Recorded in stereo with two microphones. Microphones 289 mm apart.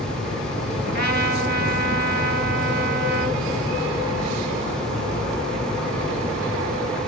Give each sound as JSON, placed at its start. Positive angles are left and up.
{"t": 0.8, "sound": "a trumpet", "side_deg": -35, "distance_m": 2.0}